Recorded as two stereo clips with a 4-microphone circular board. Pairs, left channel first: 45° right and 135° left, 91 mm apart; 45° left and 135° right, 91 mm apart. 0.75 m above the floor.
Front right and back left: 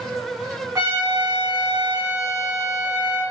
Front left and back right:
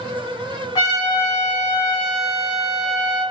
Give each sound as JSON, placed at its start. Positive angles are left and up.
{"t": 0.8, "sound": "a trumpet", "azimuth_deg": 85, "distance_m": 1.7}